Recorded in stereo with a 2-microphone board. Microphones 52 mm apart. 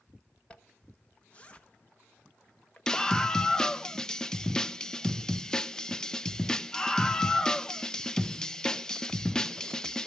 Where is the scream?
15° left (ahead or behind), 0.6 m.